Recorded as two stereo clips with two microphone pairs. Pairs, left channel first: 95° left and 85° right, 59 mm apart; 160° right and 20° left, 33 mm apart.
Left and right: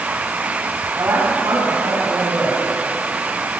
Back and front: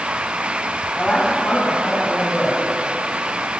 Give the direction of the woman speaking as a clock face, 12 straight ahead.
4 o'clock.